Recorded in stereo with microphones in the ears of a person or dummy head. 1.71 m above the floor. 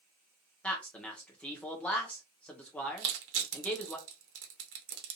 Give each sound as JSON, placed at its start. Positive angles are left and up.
{"t": 0.6, "sound": "a man speaking", "side_deg": 5, "distance_m": 0.8}
{"t": 3.0, "sound": "crushing", "side_deg": -70, "distance_m": 0.9}